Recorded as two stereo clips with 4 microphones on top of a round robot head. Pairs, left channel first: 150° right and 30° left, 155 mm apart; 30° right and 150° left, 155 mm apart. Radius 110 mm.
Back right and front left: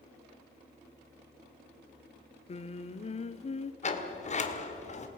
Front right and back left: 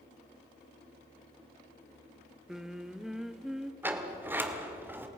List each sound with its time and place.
2.5 s singing: 125° right, 1.0 m
3.8 s a sliding door: 140° right, 2 m